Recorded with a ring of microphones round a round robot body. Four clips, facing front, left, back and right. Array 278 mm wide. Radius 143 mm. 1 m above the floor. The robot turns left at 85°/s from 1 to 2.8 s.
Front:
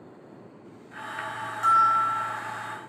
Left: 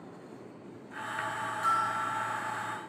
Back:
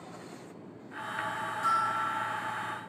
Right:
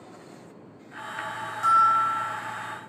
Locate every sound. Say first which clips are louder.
1.6 s a bell: right 10 dB, front 9 dB; 40° right, 1.3 m; by 2.4 s 105° right, 1.3 m